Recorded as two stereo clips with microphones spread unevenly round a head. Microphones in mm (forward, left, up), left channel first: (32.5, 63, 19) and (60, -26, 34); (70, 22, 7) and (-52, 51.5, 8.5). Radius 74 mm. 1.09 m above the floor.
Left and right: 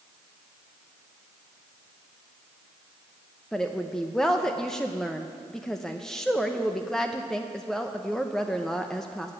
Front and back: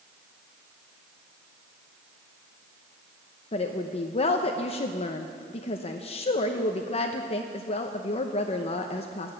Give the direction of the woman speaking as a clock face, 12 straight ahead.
11 o'clock.